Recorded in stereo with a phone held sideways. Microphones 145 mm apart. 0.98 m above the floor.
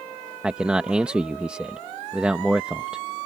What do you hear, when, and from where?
0.4 s a man speaking: 10° right (ahead or behind)